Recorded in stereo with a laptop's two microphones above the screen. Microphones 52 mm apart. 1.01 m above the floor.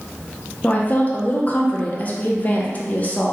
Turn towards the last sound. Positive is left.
turn(degrees=30)  # may be behind; listen again after turning